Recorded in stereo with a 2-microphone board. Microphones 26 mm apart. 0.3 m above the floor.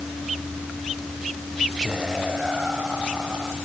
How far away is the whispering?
About 1.7 m.